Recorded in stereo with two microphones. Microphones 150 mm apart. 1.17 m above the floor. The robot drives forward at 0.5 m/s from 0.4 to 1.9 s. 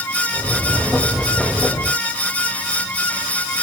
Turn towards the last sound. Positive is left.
No sound to turn to.